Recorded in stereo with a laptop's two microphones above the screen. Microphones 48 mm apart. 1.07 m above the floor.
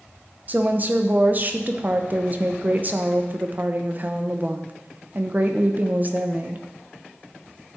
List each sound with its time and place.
0.5 s a woman speaking: 35° right (ahead or behind), 0.7 m